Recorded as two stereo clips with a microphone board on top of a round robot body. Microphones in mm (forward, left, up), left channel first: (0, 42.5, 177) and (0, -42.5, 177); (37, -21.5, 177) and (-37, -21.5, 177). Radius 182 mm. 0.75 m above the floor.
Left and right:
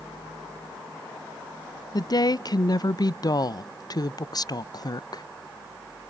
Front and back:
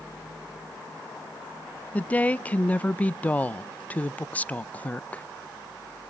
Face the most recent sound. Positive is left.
turn(degrees=65)